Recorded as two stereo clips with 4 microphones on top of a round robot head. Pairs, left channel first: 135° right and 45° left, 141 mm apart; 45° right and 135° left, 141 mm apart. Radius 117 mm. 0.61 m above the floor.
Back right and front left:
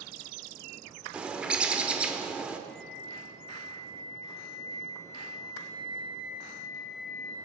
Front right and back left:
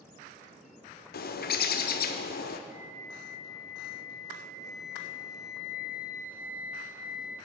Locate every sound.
1.1 s a bird: 35° right, 0.7 m
2.7 s a flute: 145° right, 3.5 m